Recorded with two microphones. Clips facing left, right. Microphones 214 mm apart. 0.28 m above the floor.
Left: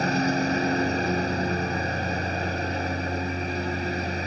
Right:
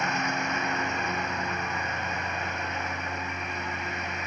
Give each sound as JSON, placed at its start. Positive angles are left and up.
{"t": 0.0, "sound": "a lawn mower", "side_deg": 35}